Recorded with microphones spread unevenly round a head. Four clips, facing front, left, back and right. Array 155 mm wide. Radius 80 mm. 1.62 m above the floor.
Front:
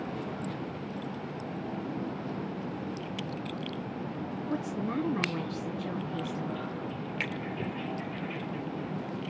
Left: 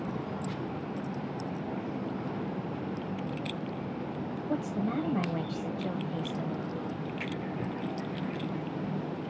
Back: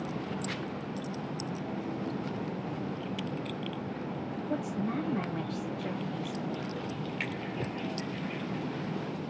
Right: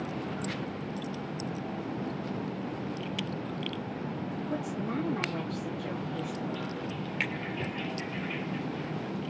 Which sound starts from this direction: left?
A woman speaking, at 4.5 s.